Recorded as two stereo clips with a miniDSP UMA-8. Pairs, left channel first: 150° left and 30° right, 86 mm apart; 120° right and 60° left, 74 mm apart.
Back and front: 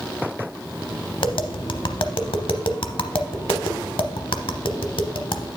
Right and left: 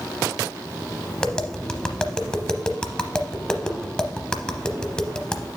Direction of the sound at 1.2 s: 160° left.